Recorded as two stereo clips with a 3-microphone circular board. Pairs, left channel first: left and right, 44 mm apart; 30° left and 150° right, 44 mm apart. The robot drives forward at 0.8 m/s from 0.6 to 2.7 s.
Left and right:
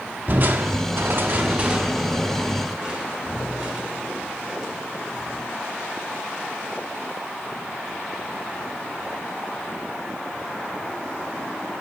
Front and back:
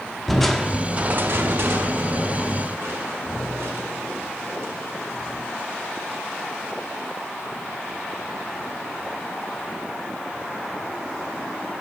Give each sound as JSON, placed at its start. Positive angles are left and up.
{"t": 0.3, "sound": "crushing", "azimuth_deg": -55, "distance_m": 0.5}